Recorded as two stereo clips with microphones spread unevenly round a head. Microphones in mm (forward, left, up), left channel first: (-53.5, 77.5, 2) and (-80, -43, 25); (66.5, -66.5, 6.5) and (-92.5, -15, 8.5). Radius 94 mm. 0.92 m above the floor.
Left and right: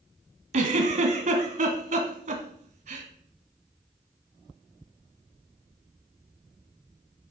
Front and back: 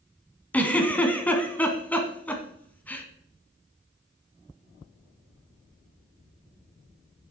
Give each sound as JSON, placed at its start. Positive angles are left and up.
{"t": 0.5, "sound": "a giggle", "azimuth_deg": -100, "distance_m": 1.7}